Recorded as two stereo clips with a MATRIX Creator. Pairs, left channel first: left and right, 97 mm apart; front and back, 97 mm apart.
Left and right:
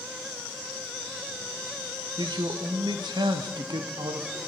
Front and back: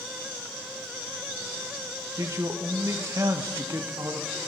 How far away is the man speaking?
About 0.6 m.